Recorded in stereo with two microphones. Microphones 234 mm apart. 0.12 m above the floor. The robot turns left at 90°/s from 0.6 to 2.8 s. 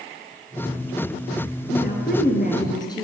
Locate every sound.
1.7 s a woman speaking: 125° left, 2 m; by 3.0 s 25° left, 2 m